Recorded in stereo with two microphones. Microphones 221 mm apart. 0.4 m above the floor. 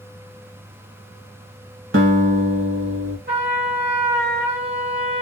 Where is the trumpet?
50° right (ahead or behind), 1.7 m.